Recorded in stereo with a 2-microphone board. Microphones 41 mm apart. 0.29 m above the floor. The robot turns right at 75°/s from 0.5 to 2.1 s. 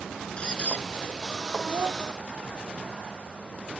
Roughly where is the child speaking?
Right.